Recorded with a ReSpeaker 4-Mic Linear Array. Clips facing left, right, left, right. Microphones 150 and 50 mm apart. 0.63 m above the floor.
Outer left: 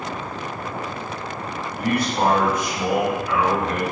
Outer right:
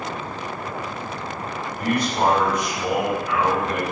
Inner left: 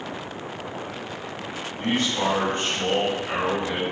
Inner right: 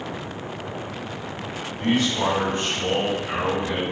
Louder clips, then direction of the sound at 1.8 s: Even, inner right 2 dB; 60° left (ahead or behind).